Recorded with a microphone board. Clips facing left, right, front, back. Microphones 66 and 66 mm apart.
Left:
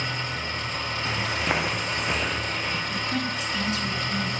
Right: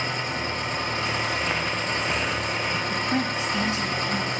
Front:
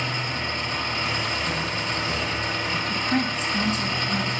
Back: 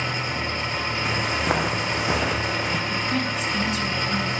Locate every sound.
0.0 s an engine running: 115° right, 3 m
1.1 s footsteps: 150° left, 1.1 m; by 2.8 s 165° right, 1.3 m
2.9 s a woman speaking: 50° right, 2 m